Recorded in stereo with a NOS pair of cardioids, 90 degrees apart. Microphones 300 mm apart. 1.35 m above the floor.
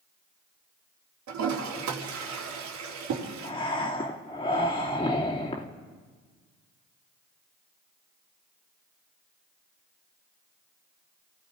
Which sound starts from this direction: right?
A toilet flushing, at 1.3 s.